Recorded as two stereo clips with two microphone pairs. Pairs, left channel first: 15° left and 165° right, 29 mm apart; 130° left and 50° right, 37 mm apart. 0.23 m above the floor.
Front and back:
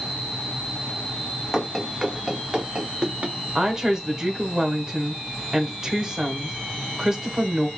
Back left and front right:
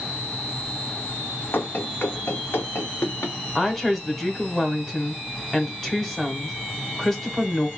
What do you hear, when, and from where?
1.5 s running footsteps: 105° left, 1.0 m; by 3.4 s 145° left, 1.5 m
3.5 s a woman speaking: 160° right, 1.1 m